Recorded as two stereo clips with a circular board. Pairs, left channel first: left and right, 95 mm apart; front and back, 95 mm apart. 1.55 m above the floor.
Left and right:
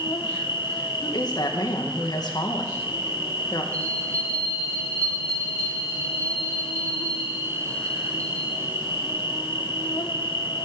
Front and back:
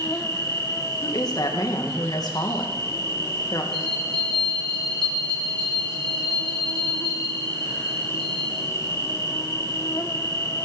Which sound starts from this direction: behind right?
A bell, at 3.7 s.